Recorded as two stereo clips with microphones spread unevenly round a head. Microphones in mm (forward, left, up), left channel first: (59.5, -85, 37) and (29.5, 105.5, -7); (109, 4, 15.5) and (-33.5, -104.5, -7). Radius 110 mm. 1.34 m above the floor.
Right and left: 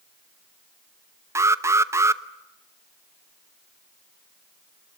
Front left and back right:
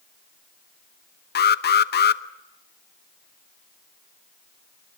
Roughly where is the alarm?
Ahead.